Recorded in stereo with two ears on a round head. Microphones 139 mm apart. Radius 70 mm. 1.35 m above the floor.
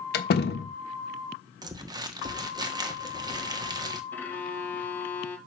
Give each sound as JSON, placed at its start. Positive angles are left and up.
{"t": 0.1, "sound": "a door slam", "side_deg": 75, "distance_m": 1.2}
{"t": 1.6, "sound": "crumpling", "side_deg": -25, "distance_m": 1.3}
{"t": 4.1, "sound": "a violin", "side_deg": 15, "distance_m": 2.0}